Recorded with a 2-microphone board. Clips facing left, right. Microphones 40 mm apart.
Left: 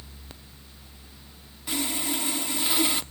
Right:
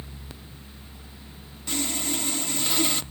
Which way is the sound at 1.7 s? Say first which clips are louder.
Even; 10° left (ahead or behind).